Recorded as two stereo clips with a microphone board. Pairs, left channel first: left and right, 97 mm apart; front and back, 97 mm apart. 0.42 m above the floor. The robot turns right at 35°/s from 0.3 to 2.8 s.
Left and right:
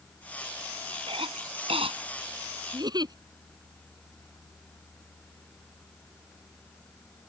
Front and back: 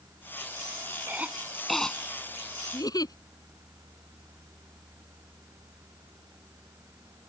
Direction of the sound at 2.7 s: 50° right.